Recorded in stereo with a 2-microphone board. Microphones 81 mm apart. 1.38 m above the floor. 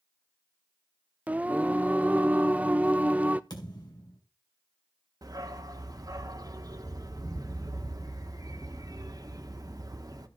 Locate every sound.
1.3 s singing: 20° right (ahead or behind), 0.5 m
3.5 s a thud: 65° left (ahead or behind), 3.5 m
5.2 s a dog barking: 50° right (ahead or behind), 1.3 m